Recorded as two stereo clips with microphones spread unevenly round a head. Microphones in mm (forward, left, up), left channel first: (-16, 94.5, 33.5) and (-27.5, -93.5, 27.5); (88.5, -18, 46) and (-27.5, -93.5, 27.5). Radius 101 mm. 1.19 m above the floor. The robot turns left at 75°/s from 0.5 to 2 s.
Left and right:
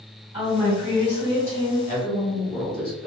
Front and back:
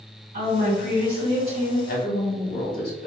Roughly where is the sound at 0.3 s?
Behind.